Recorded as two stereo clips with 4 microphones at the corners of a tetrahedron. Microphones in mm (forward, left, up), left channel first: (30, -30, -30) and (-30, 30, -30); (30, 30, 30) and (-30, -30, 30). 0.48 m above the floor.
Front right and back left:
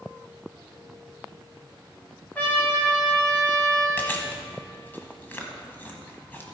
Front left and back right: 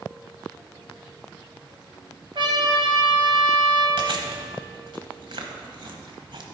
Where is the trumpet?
115° right, 2 m.